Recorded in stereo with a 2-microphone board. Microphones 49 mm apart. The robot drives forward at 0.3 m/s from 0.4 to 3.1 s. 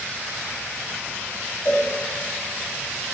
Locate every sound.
1.6 s a cowbell: 40° left (ahead or behind), 2.5 m; by 1.9 s 35° left (ahead or behind), 2.5 m